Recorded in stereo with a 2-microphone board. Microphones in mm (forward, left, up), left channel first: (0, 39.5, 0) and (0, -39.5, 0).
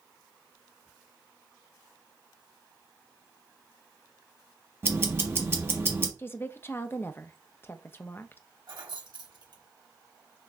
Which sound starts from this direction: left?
A woman speaking, at 6.2 s.